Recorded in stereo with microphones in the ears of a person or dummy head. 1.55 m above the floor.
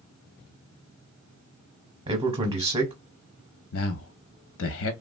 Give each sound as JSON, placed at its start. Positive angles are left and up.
{"t": 2.1, "sound": "a man speaking", "side_deg": -30, "distance_m": 0.8}
{"t": 3.7, "sound": "a man speaking", "side_deg": 60, "distance_m": 0.6}